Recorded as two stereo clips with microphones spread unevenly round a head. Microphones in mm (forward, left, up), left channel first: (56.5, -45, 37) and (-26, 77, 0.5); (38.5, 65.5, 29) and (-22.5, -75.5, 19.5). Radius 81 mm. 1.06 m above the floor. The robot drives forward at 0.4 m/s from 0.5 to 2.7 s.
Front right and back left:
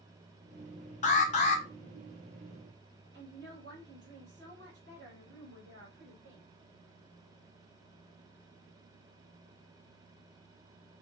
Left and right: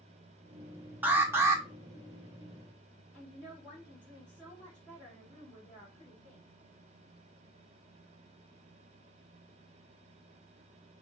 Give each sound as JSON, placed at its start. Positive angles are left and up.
{"t": 1.0, "sound": "an alarm", "azimuth_deg": -50, "distance_m": 1.0}
{"t": 3.1, "sound": "a woman speaking", "azimuth_deg": 145, "distance_m": 2.5}